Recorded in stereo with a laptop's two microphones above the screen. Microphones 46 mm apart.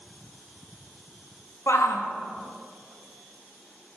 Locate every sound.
1.7 s a shout: 70° left (ahead or behind), 1.9 m